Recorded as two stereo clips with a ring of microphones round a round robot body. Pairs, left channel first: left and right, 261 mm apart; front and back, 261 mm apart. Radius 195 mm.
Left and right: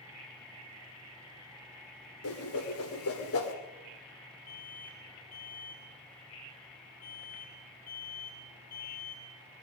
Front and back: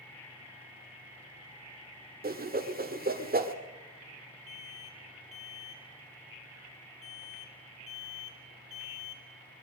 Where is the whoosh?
125° left, 2.5 m.